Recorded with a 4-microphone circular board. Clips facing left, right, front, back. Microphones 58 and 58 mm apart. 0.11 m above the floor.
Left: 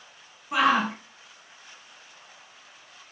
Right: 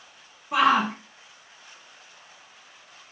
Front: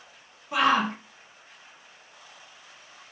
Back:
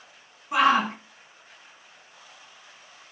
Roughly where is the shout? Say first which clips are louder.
Right 2 dB, back 2 dB; behind left.